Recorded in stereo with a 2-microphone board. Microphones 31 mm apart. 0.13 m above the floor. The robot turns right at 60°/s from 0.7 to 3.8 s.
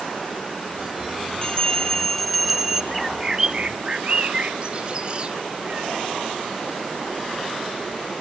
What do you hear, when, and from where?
1.4 s a bell: 125° left, 1.3 m; by 2.8 s 150° right, 1.3 m
2.9 s a bird: centre (ahead or behind), 0.9 m; by 5.9 s 35° right (ahead or behind), 0.9 m